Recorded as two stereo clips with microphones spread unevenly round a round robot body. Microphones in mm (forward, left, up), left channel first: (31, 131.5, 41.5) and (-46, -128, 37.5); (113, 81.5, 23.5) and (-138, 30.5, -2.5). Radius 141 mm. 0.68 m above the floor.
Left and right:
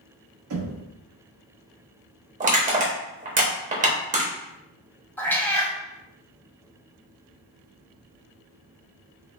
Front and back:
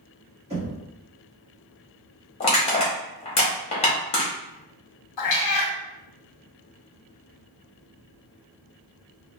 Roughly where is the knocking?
Right.